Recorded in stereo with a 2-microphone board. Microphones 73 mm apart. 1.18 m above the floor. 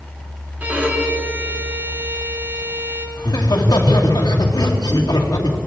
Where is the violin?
25° right (ahead or behind), 2 m.